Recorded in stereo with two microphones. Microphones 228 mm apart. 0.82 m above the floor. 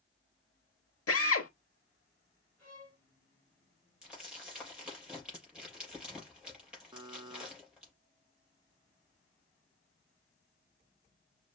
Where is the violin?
5° left (ahead or behind), 4.5 m.